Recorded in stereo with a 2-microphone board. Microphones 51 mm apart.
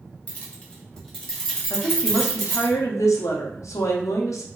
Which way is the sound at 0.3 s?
25° left (ahead or behind).